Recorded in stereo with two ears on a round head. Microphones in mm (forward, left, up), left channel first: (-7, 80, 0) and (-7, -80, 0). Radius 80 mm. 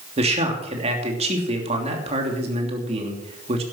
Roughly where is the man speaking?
Right.